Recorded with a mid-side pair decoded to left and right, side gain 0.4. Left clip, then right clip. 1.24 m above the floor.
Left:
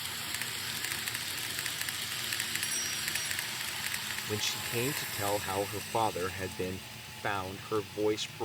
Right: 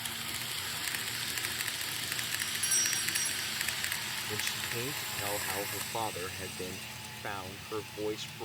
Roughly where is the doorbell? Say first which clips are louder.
Right 2 dB; ahead right.